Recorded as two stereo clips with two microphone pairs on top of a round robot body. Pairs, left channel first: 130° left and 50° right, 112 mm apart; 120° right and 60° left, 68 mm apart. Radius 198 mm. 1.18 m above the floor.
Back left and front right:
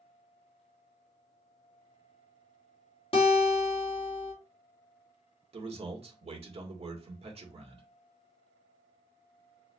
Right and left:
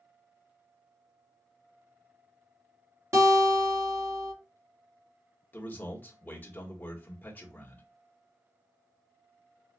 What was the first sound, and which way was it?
A guitar, 100° left.